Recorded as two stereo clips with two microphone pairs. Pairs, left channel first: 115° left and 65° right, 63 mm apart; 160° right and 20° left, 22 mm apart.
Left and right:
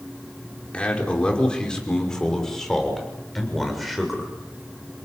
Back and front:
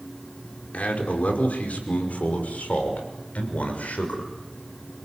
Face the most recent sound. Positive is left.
turn(degrees=-155)